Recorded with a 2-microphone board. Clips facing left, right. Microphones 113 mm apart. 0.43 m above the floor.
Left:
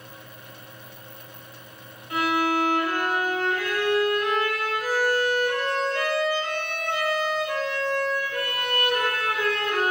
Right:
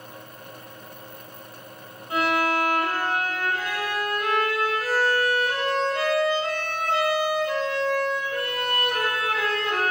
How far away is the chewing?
No chewing in this recording.